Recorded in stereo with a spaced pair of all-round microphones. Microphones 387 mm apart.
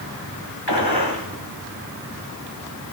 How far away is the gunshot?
About 3 m.